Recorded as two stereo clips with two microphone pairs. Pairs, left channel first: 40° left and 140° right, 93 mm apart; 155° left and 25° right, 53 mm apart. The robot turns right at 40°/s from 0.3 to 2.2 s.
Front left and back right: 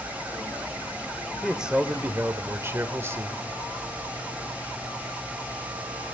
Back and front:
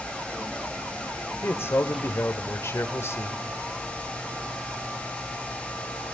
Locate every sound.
1.4 s a man speaking: 130° left, 1.2 m; by 3.5 s 165° left, 1.2 m